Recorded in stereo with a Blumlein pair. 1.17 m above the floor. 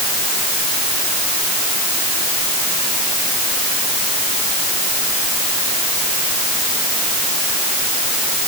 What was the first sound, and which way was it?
Only background noise.